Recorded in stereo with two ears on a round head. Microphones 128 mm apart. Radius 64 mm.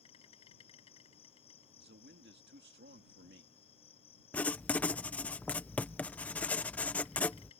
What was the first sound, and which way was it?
An insect, 45° left (ahead or behind).